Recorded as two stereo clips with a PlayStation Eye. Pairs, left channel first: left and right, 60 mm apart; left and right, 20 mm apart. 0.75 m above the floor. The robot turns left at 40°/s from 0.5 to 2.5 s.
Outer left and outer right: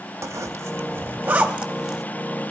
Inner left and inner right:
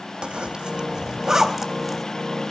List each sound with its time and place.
0.2 s a zipper: 60° right (ahead or behind), 0.7 m; by 2.0 s 5° right (ahead or behind), 0.7 m